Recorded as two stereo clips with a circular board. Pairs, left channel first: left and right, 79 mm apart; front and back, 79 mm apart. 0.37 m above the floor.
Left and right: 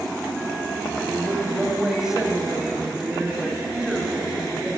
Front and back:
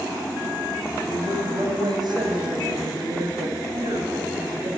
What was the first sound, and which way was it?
A woman speaking, 175° right.